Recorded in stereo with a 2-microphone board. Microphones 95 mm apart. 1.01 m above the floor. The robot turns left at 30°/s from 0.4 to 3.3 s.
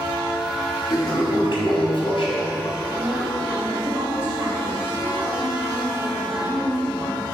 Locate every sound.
0.9 s a toilet flushing: 130° left, 2.5 m; by 2.8 s 75° left, 2.5 m
2.9 s a woman speaking: 35° right (ahead or behind), 2.5 m; by 7.2 s 20° right (ahead or behind), 2.5 m